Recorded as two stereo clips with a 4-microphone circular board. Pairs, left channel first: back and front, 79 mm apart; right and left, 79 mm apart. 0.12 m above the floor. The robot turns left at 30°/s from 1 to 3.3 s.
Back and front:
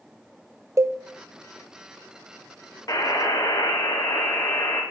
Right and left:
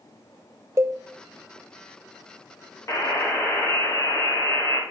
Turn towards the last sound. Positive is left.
turn(degrees=-155)